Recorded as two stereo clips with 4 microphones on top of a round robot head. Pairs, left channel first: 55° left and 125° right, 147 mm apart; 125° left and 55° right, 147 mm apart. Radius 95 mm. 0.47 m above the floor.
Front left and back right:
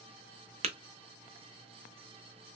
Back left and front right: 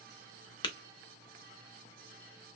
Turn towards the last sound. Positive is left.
turn(degrees=-175)